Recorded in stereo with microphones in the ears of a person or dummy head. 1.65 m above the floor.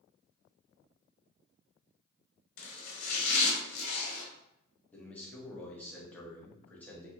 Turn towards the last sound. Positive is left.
turn(degrees=10)  # may be behind; listen again after turning